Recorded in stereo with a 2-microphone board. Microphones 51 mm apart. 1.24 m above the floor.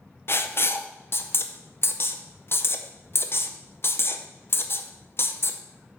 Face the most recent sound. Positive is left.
turn(degrees=50)  # may be behind; listen again after turning